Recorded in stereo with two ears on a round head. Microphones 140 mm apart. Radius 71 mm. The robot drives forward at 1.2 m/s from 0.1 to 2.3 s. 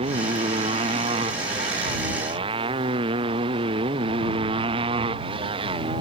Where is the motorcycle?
40° right (ahead or behind); by 6.0 s 35° right (ahead or behind).